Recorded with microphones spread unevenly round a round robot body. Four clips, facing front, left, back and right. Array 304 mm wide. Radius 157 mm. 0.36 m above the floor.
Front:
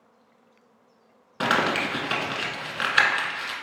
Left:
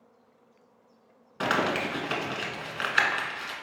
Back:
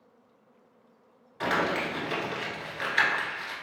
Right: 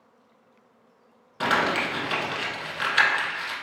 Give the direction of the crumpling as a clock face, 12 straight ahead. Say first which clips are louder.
Right 3 dB, front 4 dB; 12 o'clock.